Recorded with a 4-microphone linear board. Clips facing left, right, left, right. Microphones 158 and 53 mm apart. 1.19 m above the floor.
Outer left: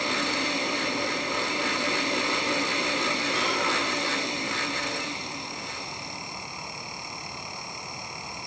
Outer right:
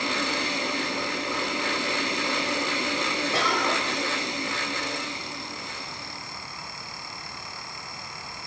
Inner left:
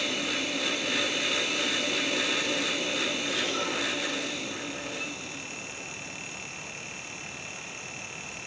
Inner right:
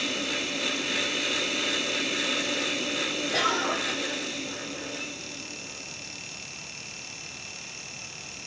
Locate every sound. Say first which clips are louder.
3.3 s a cough: outer right 2 dB, inner right 4 dB; 85° right, 7.5 m